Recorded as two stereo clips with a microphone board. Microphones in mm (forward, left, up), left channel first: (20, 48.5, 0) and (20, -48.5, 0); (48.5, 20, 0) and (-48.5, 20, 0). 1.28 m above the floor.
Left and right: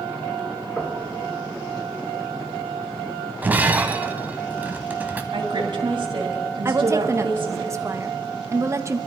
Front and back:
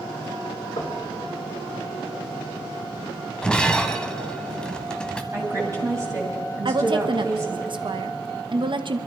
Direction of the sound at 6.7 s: 150° right.